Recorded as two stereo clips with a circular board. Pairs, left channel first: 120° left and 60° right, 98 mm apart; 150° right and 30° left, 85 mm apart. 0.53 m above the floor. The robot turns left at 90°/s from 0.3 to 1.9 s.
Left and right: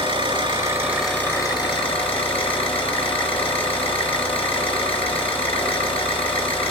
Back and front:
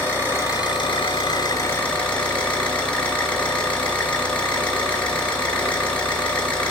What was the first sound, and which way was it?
An engine running, 85° right.